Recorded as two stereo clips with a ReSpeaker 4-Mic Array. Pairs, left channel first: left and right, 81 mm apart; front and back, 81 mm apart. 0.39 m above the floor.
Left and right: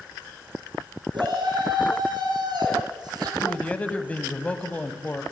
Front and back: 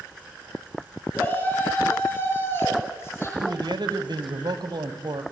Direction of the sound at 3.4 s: 160° left.